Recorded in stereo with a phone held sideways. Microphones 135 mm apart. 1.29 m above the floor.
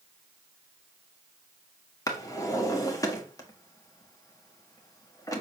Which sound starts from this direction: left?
A drawer, at 2.1 s.